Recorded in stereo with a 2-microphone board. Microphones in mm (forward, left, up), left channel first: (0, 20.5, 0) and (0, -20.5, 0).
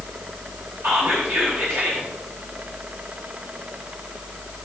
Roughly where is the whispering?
Right.